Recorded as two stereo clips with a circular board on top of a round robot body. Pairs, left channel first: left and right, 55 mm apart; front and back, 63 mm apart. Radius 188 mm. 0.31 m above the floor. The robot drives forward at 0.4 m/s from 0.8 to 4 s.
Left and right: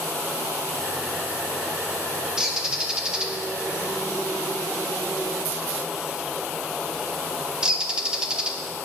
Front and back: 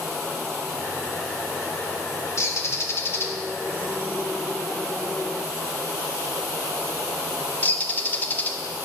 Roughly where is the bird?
Ahead.